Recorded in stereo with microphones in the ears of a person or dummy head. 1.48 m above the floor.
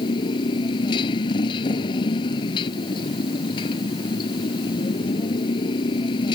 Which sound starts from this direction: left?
A motorcycle, at 0.0 s.